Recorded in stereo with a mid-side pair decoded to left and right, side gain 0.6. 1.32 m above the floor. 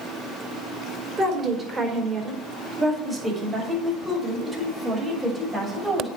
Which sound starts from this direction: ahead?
A woman speaking, at 1.2 s.